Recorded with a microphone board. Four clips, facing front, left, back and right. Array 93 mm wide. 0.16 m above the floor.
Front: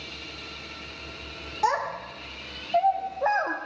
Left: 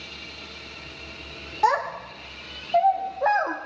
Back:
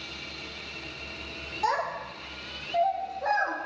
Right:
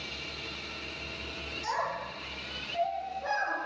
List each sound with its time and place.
1.6 s a child speaking: 75° left, 5 m; by 3.6 s 60° left, 3.5 m